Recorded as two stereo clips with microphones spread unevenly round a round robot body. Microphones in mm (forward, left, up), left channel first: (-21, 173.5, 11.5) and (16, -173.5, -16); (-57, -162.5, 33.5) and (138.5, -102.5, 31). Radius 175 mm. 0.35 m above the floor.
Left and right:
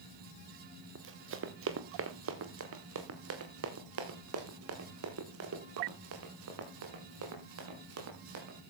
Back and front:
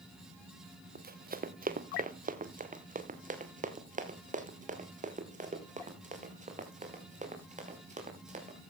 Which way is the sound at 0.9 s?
25° right.